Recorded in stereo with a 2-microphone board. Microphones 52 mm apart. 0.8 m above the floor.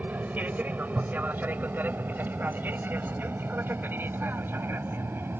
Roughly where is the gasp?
No gasp in this recording.